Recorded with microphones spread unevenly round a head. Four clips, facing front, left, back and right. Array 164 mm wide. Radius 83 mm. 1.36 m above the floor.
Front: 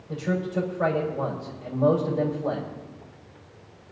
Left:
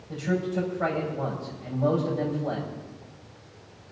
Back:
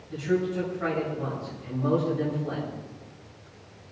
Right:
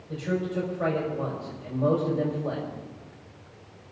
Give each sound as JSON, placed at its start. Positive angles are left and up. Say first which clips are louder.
{"t": 0.1, "sound": "a man speaking", "louder": "left 1 dB, back 1 dB", "azimuth_deg": -15, "distance_m": 5.5}